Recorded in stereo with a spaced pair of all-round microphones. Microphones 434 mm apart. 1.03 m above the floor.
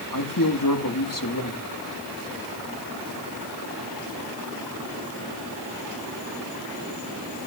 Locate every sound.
0.1 s a man speaking: 45° left (ahead or behind), 1.8 m